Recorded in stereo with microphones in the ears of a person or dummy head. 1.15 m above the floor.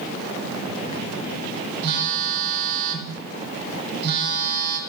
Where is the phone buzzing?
50° right (ahead or behind), 2.5 m.